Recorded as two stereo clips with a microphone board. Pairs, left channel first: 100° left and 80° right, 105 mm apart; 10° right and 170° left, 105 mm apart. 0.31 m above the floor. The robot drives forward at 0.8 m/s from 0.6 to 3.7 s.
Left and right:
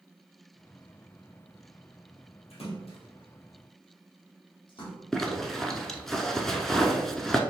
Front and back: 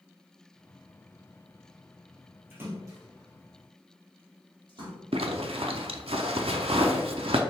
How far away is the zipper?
About 0.5 m.